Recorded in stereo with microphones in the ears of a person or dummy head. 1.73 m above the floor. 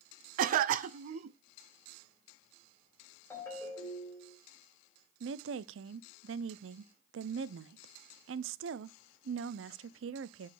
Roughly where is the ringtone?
Left.